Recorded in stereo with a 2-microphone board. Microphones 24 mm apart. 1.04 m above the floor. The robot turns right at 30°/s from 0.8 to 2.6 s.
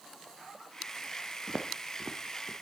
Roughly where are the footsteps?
Right.